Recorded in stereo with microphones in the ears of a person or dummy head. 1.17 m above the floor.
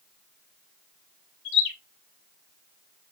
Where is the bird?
65° left (ahead or behind), 2 m.